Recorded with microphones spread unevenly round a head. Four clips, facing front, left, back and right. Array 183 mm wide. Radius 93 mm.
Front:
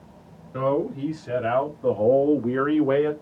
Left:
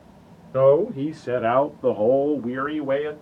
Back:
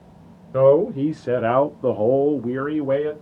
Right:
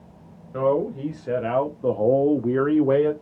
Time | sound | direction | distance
0.5 | a man speaking | 140° left | 0.9 m